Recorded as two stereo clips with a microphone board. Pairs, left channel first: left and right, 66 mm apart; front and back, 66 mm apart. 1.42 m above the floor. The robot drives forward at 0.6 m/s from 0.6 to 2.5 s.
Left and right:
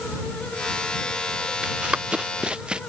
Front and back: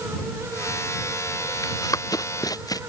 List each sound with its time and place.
1.6 s running footsteps: 15° right